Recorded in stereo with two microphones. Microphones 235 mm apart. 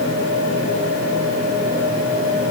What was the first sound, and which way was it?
Only background noise.